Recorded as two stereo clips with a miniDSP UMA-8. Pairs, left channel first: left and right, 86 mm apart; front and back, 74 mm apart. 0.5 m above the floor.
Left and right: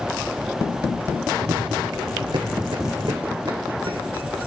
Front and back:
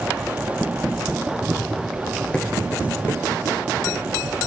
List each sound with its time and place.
1.4 s running footsteps: 105° right, 1.1 m; by 4.4 s 55° right, 3 m